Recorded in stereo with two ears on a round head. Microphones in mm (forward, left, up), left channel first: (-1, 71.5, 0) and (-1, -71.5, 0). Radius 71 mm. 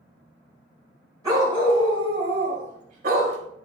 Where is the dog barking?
20° right (ahead or behind), 3 m; by 3.4 s 60° right (ahead or behind), 3 m.